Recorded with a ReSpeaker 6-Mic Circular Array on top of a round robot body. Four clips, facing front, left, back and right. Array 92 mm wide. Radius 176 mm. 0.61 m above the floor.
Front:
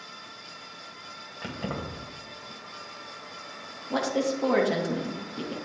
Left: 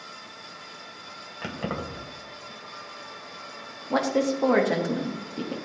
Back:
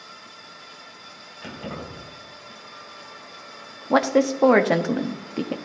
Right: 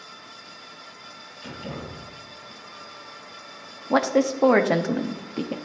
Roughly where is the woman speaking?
Behind right.